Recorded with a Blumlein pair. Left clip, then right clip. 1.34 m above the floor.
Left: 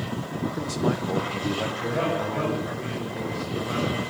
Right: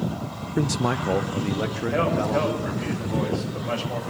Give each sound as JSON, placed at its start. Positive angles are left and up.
{"t": 0.6, "sound": "a man speaking", "azimuth_deg": -65, "distance_m": 0.6}
{"t": 1.9, "sound": "a man speaking", "azimuth_deg": -65, "distance_m": 7.0}